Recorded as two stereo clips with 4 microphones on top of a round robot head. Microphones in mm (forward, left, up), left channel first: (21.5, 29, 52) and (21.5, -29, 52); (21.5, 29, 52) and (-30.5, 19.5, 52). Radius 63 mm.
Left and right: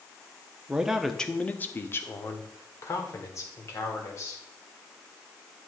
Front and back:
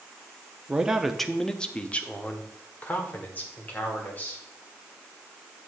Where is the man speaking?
130° right, 0.7 m; by 4.4 s 65° left, 2.5 m.